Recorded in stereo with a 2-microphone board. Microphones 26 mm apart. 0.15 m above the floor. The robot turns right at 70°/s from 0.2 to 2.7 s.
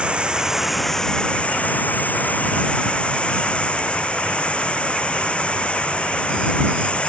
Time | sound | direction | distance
0.0 | running water | 45° right | ?